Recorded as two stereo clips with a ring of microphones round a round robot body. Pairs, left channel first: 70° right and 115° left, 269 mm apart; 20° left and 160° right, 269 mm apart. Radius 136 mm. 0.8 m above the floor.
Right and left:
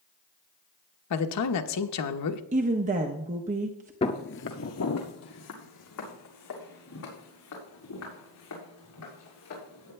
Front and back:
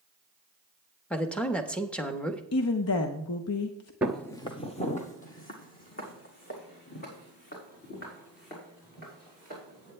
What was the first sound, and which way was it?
A man speaking, 65° right.